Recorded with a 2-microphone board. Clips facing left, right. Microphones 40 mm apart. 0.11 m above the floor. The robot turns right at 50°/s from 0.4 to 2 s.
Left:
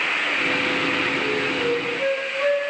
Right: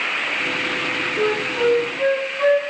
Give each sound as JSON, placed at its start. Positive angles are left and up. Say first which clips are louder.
{"t": 1.2, "sound": "a flute", "louder": "right 3 dB", "azimuth_deg": -60, "distance_m": 3.5}